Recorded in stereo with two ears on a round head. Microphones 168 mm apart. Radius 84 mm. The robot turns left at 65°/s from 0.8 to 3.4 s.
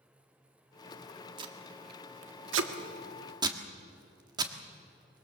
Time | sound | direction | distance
1.4 | tape being pulled | 25° right (ahead or behind) | 1.5 m